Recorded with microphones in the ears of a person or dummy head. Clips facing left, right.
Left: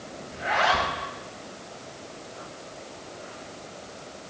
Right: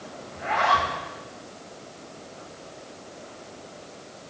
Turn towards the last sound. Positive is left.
turn(degrees=30)  # may be behind; listen again after turning